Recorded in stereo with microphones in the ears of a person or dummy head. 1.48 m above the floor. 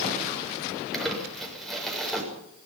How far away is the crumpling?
About 7 m.